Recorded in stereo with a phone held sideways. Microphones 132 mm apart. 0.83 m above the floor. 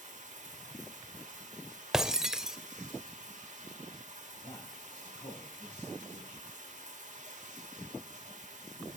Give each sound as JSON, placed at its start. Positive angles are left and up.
{"t": 0.0, "sound": "running water", "side_deg": -80, "distance_m": 1.7}
{"t": 1.9, "sound": "breaking glass", "side_deg": -5, "distance_m": 0.7}
{"t": 4.4, "sound": "a man speaking", "side_deg": 45, "distance_m": 5.0}